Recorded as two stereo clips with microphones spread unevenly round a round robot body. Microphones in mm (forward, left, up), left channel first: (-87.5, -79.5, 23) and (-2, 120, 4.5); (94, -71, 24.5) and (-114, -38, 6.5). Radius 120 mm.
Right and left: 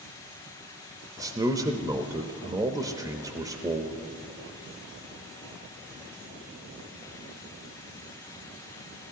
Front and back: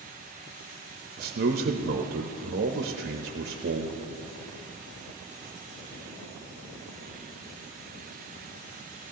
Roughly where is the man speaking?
Behind left.